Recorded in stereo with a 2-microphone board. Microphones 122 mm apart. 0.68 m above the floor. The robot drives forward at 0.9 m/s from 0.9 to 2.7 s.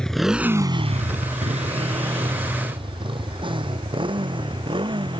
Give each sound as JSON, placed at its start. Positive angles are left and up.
{"t": 0.0, "sound": "a motorcycle", "side_deg": 5}